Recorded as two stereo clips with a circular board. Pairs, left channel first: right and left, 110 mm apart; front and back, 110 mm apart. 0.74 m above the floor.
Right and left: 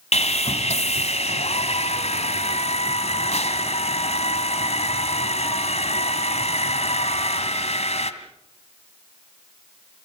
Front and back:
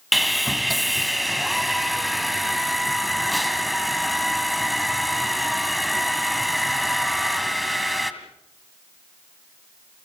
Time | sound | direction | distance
0.1 | sawing | 90° right | 1.8 m